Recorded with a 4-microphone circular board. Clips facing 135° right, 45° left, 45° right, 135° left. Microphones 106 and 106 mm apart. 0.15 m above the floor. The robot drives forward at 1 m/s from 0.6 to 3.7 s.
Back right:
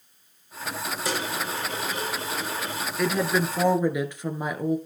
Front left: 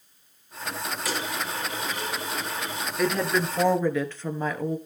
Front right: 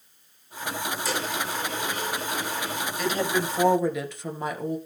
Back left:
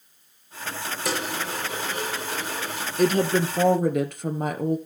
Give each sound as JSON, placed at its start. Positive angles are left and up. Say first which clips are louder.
{"t": 1.1, "sound": "a dropped coin", "louder": "back right 2 dB, back left 3 dB", "azimuth_deg": 165, "distance_m": 5.0}
{"t": 3.0, "sound": "a woman speaking", "louder": "even, back left 6 dB", "azimuth_deg": 130, "distance_m": 1.4}